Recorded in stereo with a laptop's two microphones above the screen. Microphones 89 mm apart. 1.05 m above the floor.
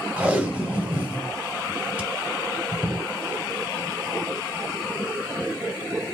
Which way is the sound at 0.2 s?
15° right (ahead or behind).